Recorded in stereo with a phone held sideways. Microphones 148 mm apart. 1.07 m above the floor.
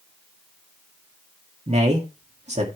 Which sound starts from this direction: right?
A man speaking, at 1.7 s.